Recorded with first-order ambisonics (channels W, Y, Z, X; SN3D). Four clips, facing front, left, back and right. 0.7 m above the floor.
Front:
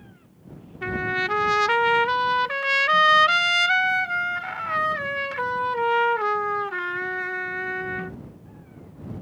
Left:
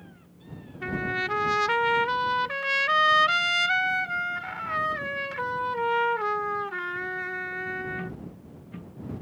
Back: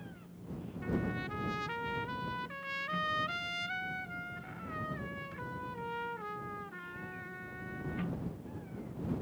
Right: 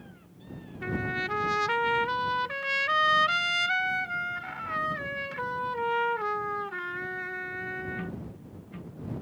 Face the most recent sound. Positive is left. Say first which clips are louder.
# left 2 dB, front 12 dB
turn(degrees=10)